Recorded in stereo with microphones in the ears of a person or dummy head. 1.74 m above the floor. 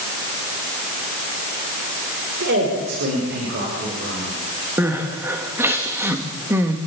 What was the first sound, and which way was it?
A man speaking, 60° right (ahead or behind).